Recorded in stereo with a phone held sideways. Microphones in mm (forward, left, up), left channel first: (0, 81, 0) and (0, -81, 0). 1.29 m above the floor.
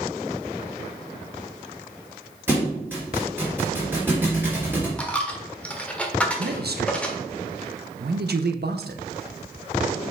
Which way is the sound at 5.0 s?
5° left (ahead or behind).